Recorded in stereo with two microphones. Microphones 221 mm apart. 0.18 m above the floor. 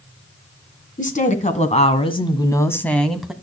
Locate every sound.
1.0 s a woman speaking: 35° left (ahead or behind), 2 m; by 3.3 s 5° right (ahead or behind), 1.5 m